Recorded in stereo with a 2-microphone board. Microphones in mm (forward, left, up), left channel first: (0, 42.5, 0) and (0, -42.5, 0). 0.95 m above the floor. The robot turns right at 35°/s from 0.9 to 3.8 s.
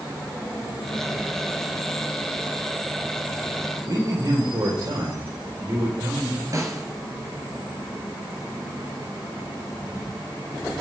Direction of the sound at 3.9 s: 55° right (ahead or behind).